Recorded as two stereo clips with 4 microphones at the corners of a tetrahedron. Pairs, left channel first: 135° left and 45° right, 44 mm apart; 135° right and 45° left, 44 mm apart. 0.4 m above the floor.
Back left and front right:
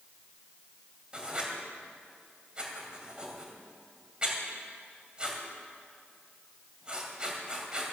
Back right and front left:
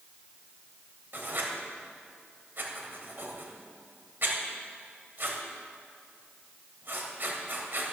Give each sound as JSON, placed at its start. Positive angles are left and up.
{"t": 1.1, "sound": "writing", "azimuth_deg": 20, "distance_m": 2.5}